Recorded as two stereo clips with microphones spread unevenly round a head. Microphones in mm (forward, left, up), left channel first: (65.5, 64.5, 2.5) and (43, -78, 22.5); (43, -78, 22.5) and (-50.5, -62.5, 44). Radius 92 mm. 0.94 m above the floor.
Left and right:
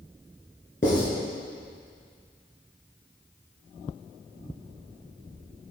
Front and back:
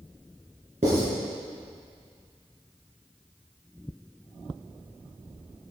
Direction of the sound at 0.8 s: 135° left.